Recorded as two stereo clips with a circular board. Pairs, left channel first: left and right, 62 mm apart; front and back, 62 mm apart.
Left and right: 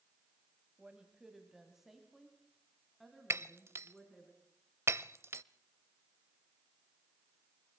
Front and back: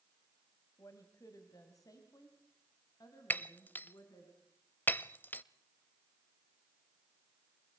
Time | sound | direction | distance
0.8 | a woman speaking | 15° right | 2 m
3.3 | breaking glass | 55° right | 0.6 m